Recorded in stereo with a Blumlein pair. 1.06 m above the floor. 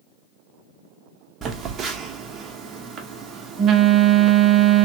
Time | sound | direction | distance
1.4 | a phone buzzing | 25° right | 0.6 m